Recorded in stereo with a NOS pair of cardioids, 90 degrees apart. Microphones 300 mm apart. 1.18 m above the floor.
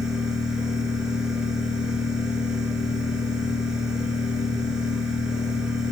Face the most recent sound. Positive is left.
turn(degrees=0)